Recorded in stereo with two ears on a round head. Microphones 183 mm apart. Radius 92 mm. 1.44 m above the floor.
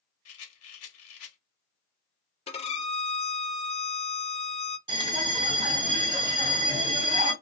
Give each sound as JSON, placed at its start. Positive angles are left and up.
{"t": 0.2, "sound": "a rattle", "side_deg": 80, "distance_m": 1.2}
{"t": 2.5, "sound": "a violin", "side_deg": 30, "distance_m": 0.7}
{"t": 4.9, "sound": "a bell", "side_deg": -15, "distance_m": 1.8}